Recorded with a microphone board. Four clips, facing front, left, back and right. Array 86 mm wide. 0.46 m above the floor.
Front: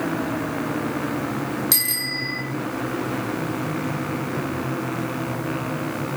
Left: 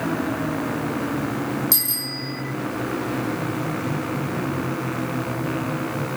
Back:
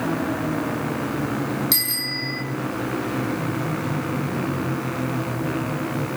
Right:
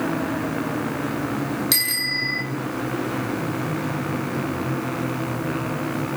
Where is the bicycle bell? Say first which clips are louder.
Right 3 dB, even; 85° right, 6 m.